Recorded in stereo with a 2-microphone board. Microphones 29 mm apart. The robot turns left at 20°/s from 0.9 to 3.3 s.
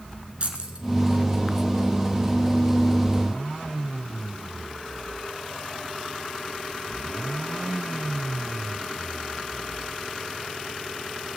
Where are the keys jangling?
40° right (ahead or behind), 1.6 m.